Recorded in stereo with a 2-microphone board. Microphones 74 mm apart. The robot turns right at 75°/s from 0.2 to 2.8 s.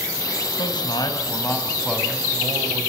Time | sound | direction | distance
0.6 | a man speaking | 85° left | 5 m